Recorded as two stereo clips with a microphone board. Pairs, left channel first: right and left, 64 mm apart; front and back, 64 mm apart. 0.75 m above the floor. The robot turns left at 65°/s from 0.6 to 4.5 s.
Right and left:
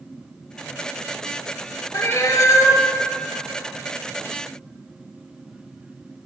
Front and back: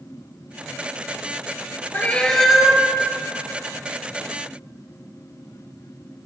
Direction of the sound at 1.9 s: 55° right.